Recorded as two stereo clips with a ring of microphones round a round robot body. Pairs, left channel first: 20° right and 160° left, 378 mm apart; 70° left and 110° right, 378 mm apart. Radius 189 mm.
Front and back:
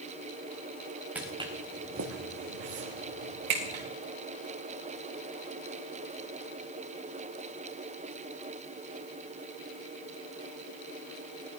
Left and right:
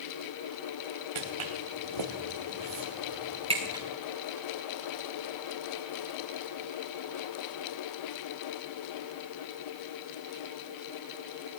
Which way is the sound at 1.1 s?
115° right.